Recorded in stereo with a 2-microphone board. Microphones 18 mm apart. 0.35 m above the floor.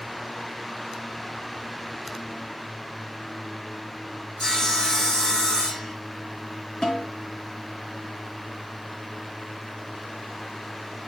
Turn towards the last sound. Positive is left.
turn(degrees=35)  # may be behind; listen again after turning